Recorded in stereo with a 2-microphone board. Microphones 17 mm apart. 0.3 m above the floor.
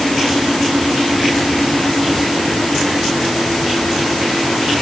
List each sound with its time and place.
Only background noise.